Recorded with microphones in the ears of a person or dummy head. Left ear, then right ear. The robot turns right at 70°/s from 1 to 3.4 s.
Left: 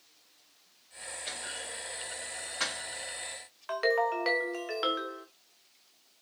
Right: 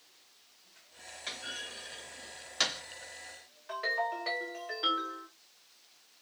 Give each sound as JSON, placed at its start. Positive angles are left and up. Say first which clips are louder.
{"t": 1.3, "sound": "a clunk", "louder": "right 1 dB", "side_deg": -30, "distance_m": 2.0}
{"t": 3.7, "sound": "a ringtone", "louder": "left 5 dB", "side_deg": 45, "distance_m": 0.7}